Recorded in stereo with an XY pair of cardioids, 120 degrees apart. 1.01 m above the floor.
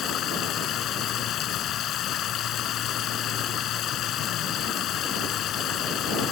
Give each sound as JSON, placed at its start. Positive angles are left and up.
{"t": 0.0, "sound": "running water", "azimuth_deg": 60}